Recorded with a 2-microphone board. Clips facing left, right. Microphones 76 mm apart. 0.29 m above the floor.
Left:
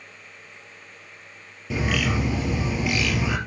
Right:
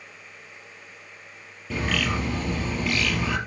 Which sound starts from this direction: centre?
A bird, at 1.7 s.